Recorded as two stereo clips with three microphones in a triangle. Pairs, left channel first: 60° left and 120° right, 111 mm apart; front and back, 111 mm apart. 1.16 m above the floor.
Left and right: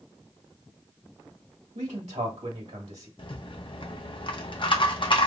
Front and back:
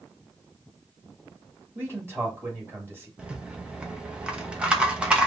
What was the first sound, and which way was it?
A man speaking, 110° right.